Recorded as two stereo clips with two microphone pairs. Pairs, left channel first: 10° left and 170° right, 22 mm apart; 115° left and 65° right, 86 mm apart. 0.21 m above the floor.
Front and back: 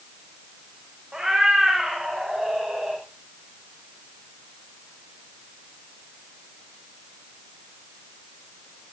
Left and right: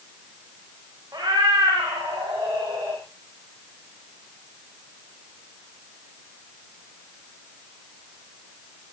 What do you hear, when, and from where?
1.1 s a cat meowing: 115° right, 9 m; by 3.0 s 130° right, 10 m